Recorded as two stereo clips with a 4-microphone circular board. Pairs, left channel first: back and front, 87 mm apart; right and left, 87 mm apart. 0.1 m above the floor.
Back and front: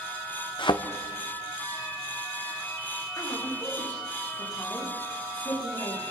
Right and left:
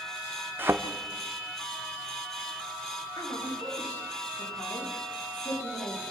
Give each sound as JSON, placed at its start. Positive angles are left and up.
{"t": 0.6, "sound": "a thud", "azimuth_deg": 155, "distance_m": 1.8}
{"t": 3.2, "sound": "a woman speaking", "azimuth_deg": -130, "distance_m": 9.0}